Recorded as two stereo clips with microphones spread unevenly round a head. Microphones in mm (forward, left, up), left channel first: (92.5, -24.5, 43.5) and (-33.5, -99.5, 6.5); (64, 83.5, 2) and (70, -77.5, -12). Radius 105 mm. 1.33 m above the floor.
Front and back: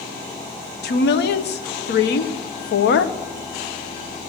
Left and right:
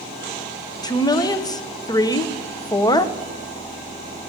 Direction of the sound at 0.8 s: 25° left.